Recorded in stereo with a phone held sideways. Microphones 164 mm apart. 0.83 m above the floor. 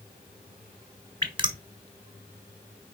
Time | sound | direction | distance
1.2 | dripping | 30° right (ahead or behind) | 1.3 m